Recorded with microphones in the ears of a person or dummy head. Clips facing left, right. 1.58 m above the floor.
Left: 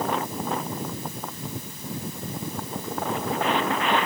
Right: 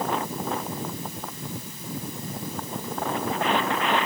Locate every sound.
Only background noise.